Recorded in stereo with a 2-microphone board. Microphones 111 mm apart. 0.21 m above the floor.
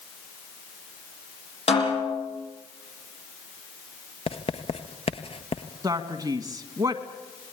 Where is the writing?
60° left (ahead or behind), 1.5 m.